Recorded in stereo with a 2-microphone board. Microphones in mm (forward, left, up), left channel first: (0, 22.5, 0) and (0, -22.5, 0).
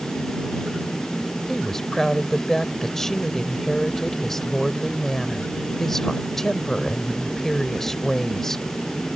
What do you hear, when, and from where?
1.5 s a woman speaking: 5° left (ahead or behind)